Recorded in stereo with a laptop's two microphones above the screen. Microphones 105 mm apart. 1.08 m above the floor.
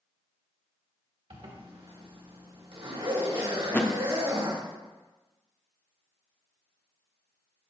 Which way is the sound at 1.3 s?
55° right (ahead or behind).